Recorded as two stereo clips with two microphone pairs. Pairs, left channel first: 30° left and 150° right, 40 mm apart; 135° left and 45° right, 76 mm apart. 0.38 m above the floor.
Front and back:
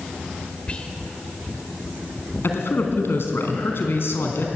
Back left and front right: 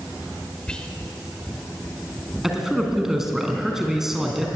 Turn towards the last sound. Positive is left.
turn(degrees=40)